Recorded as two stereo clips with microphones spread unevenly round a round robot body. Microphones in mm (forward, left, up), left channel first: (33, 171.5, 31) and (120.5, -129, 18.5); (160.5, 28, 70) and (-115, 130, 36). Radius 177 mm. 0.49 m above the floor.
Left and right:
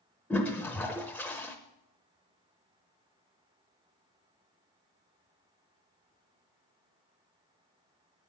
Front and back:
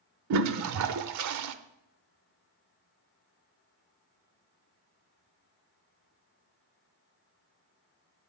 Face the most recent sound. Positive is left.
turn(degrees=-170)